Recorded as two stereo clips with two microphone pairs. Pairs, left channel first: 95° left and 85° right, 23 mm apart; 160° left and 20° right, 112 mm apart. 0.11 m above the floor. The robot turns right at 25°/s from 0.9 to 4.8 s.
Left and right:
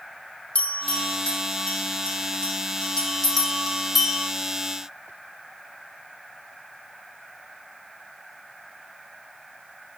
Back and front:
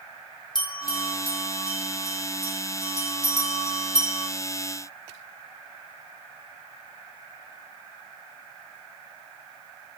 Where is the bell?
110° left, 4 m; by 4.3 s 165° right, 4 m.